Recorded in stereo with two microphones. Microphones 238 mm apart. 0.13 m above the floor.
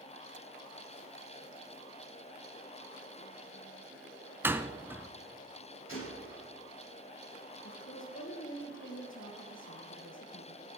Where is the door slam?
10° right (ahead or behind), 0.8 m.